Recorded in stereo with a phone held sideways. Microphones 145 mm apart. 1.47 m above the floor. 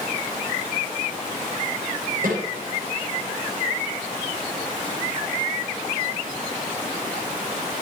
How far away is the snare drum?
About 9.5 m.